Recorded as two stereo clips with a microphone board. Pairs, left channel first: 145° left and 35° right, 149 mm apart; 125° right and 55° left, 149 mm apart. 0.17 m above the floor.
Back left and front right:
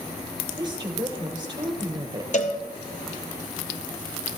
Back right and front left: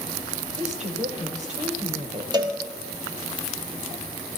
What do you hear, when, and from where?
0.6 s a woman speaking: 25° left, 2.5 m
2.3 s a cowbell: 120° left, 1.3 m